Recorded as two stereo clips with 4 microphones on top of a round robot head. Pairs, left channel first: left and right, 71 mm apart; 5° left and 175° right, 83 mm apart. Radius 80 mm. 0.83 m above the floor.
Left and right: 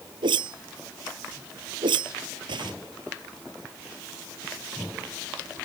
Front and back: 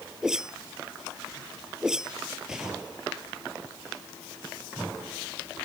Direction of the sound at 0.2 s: 90° right.